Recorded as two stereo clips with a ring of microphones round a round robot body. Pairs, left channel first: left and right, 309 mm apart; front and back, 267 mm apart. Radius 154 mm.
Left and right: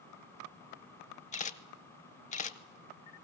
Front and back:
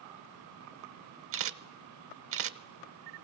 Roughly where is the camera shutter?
Behind left.